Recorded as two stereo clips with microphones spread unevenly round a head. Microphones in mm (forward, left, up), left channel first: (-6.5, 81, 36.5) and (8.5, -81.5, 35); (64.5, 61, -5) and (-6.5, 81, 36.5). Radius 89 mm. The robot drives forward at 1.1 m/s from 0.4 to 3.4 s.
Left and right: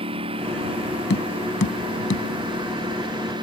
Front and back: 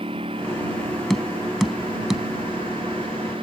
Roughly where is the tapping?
Left.